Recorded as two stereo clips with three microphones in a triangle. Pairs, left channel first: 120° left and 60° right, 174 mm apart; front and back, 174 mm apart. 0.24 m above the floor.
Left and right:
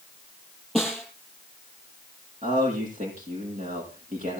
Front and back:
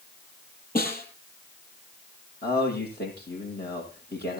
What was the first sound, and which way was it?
A snare drum, 30° left.